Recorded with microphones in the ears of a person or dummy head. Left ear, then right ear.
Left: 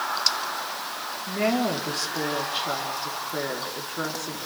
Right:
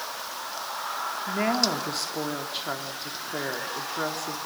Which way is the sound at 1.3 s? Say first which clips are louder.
Left 1 dB; 25° right (ahead or behind).